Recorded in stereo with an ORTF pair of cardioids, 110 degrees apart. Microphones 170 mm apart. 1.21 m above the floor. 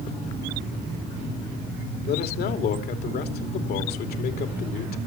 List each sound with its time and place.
2.1 s a man speaking: 65° left, 3 m